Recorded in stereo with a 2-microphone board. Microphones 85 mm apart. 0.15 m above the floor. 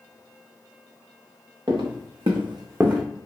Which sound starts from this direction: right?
Footsteps, at 1.7 s.